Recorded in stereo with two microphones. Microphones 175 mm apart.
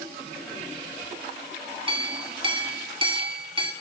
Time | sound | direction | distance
1.9 | a clink | 30° right (ahead or behind) | 1.8 m